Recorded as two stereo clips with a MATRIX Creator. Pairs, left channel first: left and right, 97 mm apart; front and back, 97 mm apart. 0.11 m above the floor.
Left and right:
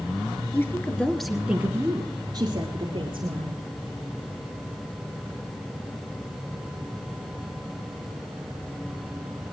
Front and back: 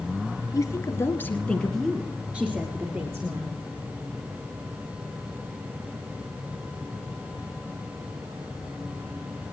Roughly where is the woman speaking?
Ahead left.